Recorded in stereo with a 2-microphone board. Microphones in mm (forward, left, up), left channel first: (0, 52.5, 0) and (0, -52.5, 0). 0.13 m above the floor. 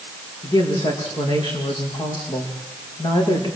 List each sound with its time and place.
0.4 s a woman speaking: 45° left (ahead or behind), 7.5 m